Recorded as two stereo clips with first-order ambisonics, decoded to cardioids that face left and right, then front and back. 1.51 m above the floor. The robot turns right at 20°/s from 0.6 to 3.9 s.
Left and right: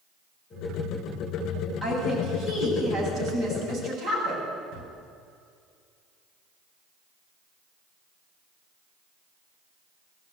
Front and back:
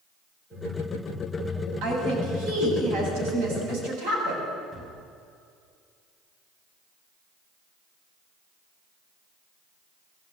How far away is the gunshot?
About 4.5 m.